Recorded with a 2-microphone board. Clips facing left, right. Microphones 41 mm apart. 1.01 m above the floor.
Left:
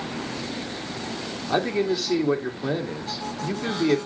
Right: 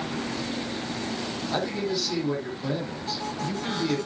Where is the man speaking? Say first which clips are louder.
Left 6 dB; 30° left (ahead or behind), 2.5 m.